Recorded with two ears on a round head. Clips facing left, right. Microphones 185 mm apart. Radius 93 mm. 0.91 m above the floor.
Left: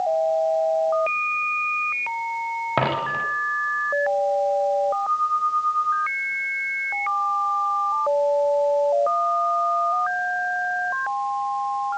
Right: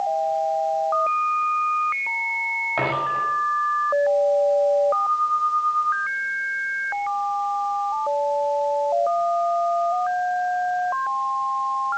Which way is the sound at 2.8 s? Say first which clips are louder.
Left 1 dB; 65° left (ahead or behind).